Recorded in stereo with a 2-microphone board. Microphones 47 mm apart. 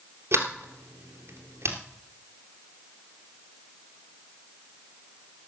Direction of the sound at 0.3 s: 60° right (ahead or behind).